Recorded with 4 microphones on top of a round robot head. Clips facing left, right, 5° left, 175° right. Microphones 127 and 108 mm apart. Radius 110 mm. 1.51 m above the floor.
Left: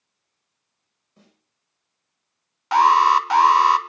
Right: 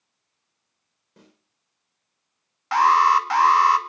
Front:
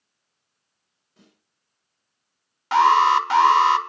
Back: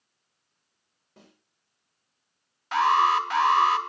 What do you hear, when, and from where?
1.2 s a snare drum: 125° right, 5.5 m
2.7 s an alarm: 20° left, 2 m